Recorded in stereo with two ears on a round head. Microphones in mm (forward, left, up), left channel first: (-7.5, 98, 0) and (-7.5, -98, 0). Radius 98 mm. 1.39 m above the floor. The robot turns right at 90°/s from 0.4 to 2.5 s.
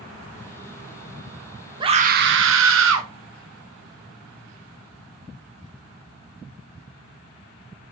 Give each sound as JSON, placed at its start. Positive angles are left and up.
{"t": 1.8, "sound": "a scream", "azimuth_deg": -155, "distance_m": 1.1}